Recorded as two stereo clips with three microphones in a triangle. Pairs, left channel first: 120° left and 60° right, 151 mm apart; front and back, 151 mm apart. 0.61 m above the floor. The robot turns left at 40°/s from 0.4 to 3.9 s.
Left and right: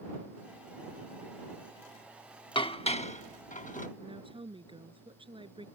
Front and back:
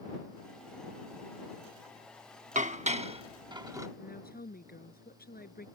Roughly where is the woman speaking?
Ahead.